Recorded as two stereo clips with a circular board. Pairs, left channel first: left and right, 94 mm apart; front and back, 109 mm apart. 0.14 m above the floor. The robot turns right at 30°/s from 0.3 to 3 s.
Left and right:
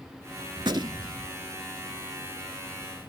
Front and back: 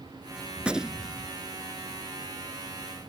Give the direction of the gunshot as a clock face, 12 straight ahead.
3 o'clock.